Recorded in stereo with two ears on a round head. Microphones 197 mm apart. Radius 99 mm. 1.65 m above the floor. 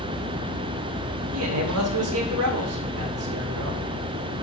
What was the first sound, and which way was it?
A man speaking, 75° right (ahead or behind).